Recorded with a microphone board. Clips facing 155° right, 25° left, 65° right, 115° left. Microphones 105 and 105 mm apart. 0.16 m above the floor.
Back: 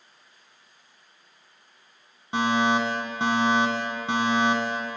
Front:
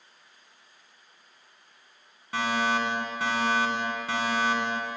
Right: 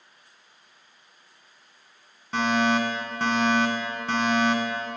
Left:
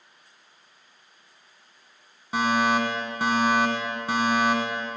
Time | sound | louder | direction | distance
2.3 | a fire alarm | back 4 dB, even | 175° left | 2 m